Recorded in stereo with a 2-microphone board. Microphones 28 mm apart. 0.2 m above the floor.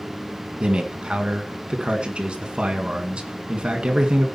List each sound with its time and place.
0.6 s a man speaking: 40° right (ahead or behind), 2 m